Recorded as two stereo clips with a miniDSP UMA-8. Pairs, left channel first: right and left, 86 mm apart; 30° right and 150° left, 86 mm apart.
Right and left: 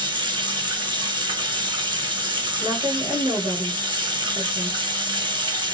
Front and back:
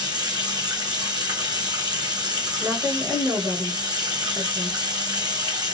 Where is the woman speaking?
95° left, 2 m.